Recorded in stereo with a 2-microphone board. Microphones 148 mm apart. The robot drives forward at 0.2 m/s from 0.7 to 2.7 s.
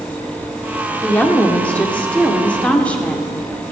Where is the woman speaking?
10° left (ahead or behind), 1.4 m.